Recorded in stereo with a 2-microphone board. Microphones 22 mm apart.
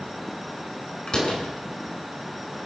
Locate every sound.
1.1 s a door slam: 40° left (ahead or behind), 6 m